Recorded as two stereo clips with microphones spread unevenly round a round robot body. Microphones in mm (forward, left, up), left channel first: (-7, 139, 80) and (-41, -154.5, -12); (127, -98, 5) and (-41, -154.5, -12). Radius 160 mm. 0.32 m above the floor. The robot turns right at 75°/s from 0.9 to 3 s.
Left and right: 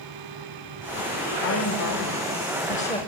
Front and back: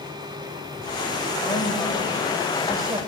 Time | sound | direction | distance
1.4 | a woman speaking | 60° left | 1.4 m